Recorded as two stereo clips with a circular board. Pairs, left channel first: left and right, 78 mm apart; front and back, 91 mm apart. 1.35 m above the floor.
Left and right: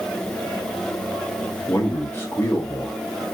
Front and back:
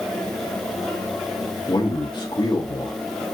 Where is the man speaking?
30° left, 1.2 m.